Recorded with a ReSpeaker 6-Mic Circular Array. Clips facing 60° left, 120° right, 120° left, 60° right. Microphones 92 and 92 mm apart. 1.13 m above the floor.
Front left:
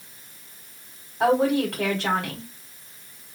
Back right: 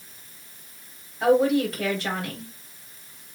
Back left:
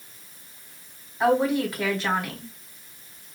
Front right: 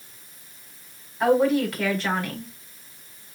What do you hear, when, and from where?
1.2 s a woman speaking: 45° left, 4 m